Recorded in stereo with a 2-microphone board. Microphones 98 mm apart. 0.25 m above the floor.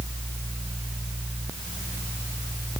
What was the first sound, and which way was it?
Only background noise.